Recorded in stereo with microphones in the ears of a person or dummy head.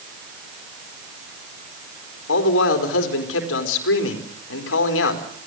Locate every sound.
2.3 s a man speaking: 80° left, 4.5 m